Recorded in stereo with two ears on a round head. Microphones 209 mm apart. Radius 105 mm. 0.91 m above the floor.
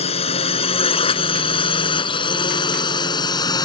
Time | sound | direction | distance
0.0 | a drone | 25° left (ahead or behind) | ?